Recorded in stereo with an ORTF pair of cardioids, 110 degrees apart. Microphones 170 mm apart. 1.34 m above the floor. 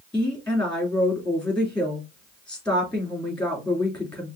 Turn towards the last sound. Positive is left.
turn(degrees=5)